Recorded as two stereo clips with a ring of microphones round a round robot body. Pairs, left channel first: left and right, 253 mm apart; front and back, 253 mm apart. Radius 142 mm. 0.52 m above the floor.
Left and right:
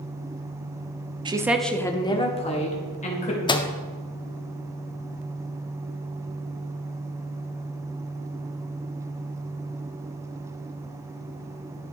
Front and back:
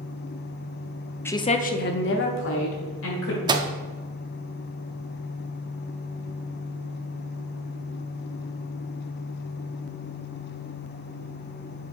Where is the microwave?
135° left, 0.5 m.